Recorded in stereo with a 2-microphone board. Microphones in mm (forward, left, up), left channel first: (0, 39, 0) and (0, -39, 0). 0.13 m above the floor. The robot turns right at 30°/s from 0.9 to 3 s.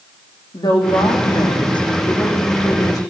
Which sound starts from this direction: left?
A woman speaking, at 0.5 s.